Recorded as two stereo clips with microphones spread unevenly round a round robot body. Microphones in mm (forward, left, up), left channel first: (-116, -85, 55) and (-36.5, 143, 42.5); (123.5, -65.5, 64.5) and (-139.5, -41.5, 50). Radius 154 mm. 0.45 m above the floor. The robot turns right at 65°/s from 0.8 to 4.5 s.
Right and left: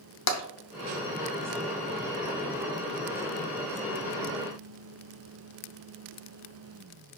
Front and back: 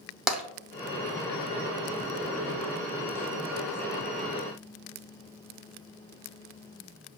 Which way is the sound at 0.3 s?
100° right.